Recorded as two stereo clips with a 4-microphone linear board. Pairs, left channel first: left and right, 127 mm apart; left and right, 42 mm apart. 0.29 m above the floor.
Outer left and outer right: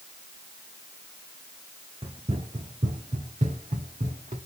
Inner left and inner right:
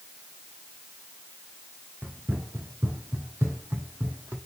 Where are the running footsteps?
50° right (ahead or behind), 1.4 m; by 4.4 s 80° right, 2.5 m.